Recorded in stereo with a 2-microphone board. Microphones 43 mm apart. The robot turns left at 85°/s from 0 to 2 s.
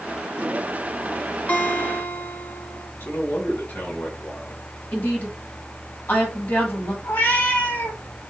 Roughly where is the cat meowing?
Left.